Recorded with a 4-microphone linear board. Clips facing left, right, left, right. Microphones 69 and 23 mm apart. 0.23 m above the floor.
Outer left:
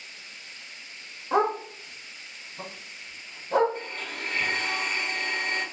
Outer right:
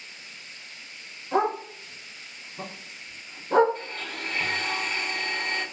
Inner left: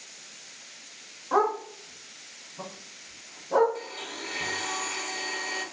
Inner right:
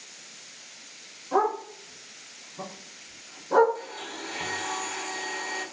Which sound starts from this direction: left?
A dog barking, at 1.3 s.